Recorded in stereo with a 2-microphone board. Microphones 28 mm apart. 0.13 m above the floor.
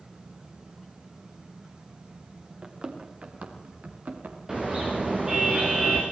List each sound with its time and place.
2.6 s running footsteps: 35° right (ahead or behind), 4 m; by 4.4 s 70° right (ahead or behind), 4.5 m
4.5 s a car horn: 20° right (ahead or behind), 6 m